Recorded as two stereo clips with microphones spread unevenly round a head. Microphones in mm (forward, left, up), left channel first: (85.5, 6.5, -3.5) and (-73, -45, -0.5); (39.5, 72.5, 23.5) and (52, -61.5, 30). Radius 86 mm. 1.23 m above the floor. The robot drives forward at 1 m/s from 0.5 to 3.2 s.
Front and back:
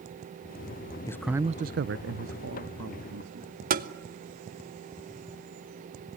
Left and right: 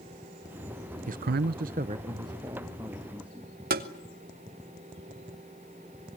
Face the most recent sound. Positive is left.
turn(degrees=-120)